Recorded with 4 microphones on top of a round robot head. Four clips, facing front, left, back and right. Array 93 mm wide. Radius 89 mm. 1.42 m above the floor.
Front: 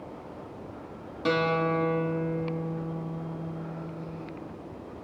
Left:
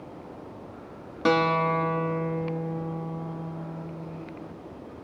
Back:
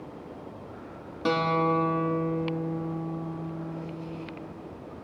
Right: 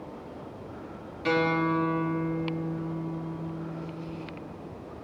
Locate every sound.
1.2 s a guitar: 100° left, 2.5 m